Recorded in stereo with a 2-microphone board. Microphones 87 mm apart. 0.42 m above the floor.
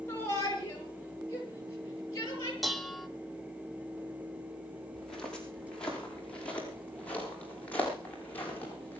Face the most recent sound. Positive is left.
turn(degrees=20)  # may be behind; listen again after turning